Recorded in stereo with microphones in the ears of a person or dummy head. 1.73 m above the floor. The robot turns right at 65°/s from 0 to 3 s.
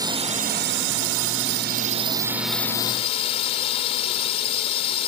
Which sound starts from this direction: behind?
A drone, at 0.0 s.